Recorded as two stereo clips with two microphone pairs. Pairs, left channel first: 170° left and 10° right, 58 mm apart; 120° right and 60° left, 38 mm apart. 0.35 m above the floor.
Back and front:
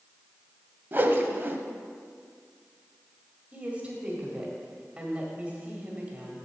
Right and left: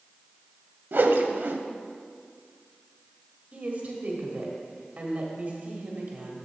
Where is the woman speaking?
45° left, 1.7 m.